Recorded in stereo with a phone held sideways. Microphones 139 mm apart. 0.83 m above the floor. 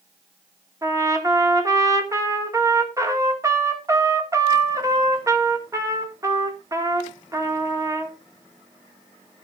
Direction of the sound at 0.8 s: 20° right (ahead or behind).